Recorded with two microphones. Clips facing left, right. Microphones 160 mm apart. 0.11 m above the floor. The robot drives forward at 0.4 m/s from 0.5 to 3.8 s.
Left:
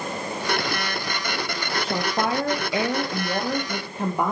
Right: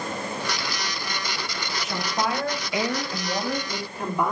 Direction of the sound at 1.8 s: 30° left (ahead or behind).